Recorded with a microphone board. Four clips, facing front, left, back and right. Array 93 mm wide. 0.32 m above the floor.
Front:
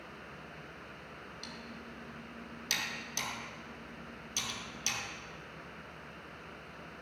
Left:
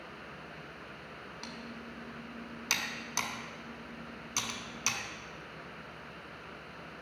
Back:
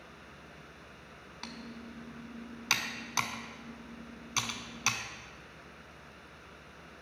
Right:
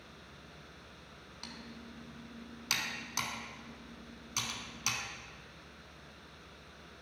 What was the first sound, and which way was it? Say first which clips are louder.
Typing on a keyboard: left 2 dB, back 6 dB; 175° left.